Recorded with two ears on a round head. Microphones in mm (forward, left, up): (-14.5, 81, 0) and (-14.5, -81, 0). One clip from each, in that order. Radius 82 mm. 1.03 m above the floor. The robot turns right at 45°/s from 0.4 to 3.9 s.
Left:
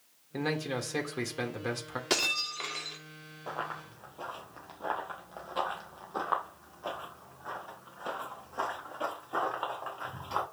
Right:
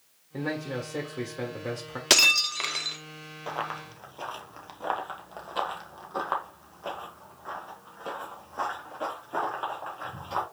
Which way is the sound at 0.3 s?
85° left.